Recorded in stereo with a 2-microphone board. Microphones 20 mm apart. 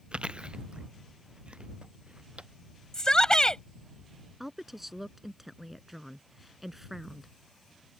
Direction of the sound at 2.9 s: 40° left (ahead or behind).